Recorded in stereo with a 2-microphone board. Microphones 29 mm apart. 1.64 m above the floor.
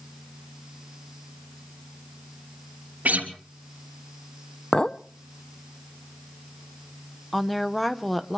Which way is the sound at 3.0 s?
65° right (ahead or behind).